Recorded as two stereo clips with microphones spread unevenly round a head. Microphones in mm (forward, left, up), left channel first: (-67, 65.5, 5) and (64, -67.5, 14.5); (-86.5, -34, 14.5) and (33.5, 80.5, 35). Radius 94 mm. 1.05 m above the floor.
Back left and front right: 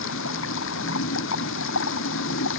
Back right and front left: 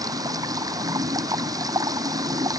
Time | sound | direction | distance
0.0 | running water | 110° left | ?